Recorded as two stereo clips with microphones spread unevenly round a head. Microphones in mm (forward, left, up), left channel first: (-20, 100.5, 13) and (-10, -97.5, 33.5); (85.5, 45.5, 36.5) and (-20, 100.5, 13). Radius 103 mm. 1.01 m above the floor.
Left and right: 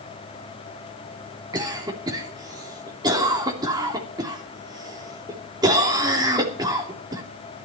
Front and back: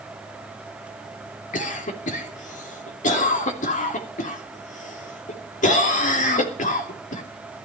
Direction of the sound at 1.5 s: 15° right.